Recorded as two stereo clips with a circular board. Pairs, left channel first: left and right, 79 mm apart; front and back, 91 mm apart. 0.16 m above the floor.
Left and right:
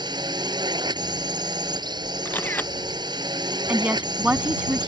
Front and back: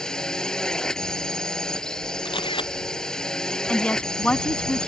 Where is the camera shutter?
20° left.